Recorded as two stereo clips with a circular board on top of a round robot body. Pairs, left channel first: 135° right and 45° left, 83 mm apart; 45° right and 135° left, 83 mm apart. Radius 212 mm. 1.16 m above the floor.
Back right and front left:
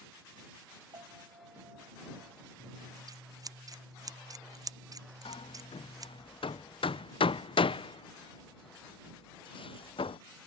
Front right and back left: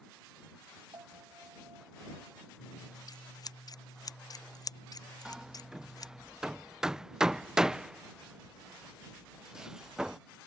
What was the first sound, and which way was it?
A piano, 85° left.